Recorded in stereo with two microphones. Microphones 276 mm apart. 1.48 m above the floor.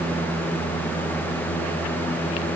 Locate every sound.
Only background noise.